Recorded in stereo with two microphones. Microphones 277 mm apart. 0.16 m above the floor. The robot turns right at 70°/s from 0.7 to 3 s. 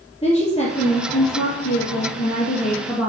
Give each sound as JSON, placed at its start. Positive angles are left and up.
{"t": 0.2, "sound": "a woman speaking", "azimuth_deg": 15, "distance_m": 3.5}